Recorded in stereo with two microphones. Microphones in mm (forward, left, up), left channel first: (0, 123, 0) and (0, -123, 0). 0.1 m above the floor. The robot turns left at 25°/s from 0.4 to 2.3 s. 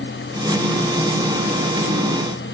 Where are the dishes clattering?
I don't hear dishes clattering.